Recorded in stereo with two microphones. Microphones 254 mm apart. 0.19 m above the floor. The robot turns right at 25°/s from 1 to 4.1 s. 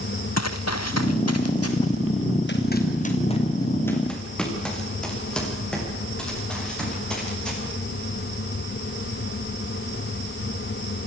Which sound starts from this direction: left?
Running footsteps, at 0.4 s.